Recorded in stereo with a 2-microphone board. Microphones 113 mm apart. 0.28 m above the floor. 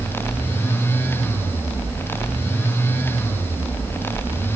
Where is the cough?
I don't hear a cough.